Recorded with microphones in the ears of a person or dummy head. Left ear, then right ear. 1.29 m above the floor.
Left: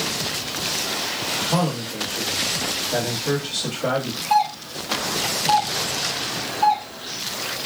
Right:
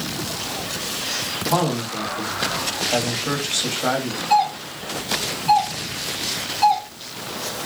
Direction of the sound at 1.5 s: 50° right (ahead or behind).